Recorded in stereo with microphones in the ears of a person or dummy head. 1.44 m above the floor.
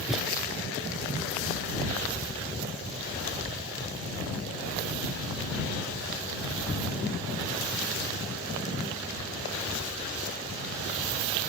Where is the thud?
5° right (ahead or behind).